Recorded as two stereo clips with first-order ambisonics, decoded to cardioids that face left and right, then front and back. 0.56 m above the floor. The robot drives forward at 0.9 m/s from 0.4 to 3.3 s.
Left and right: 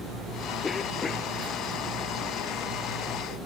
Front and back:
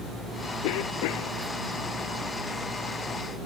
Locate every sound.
0.6 s a cough: 15° left